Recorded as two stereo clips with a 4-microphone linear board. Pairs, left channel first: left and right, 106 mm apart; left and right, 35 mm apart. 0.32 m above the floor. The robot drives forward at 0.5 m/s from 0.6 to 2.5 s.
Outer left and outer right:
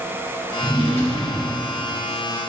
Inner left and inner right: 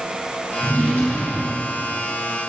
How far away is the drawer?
About 2 m.